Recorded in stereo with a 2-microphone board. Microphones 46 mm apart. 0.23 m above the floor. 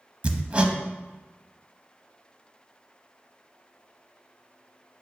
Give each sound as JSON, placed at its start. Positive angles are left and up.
{"t": 0.2, "sound": "hammering", "side_deg": -25, "distance_m": 0.6}